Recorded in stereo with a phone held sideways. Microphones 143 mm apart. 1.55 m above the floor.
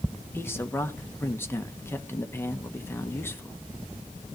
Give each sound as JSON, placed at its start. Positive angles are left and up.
{"t": 0.3, "sound": "a man speaking", "side_deg": 15, "distance_m": 1.3}